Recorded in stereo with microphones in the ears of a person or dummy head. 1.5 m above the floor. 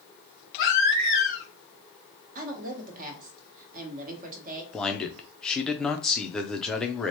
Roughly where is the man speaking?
Centre.